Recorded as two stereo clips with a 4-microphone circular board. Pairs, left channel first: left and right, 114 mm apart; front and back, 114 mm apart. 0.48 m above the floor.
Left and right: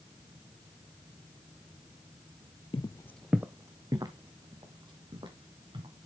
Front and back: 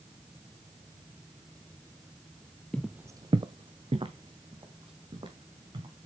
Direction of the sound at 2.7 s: 80° left.